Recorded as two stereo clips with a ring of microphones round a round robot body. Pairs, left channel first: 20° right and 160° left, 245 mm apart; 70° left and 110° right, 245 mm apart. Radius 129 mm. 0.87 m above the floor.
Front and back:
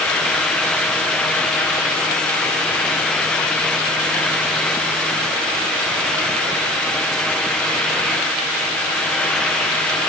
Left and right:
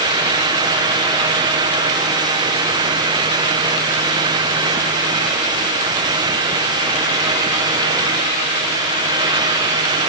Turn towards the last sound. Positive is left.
No sound to turn to.